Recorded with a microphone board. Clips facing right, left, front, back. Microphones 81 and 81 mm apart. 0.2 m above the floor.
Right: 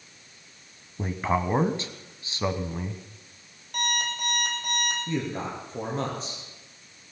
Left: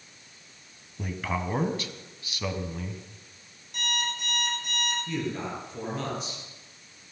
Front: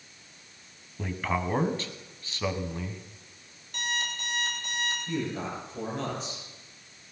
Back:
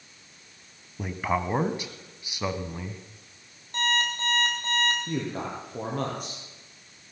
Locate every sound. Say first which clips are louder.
1.0 s a man speaking: right 5 dB, back 2 dB; 115° right, 1.2 m
3.7 s an alarm clock: right 3 dB, back 7 dB; 125° right, 3.5 m
5.1 s a man speaking: right 1 dB, back 1 dB; 145° right, 5 m